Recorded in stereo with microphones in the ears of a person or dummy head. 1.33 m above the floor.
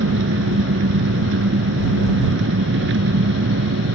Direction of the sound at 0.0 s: 70° right (ahead or behind).